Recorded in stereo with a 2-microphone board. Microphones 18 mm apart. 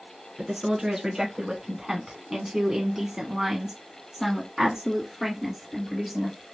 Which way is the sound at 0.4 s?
30° right (ahead or behind).